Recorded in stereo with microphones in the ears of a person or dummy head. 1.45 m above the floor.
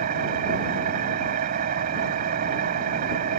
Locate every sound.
0.0 s an engine running: 55° right (ahead or behind)